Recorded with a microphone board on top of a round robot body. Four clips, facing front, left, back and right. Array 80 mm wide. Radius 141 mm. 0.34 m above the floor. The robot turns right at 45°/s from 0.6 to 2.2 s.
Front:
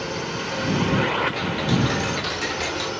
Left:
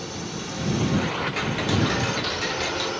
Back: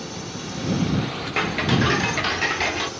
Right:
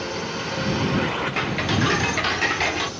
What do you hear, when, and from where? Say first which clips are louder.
0.0 s a drone: right 5 dB, front 5 dB; 45° right; by 3.0 s 50° left
1.4 s ticking: even, back 1 dB; 160° right; by 2.9 s 120° right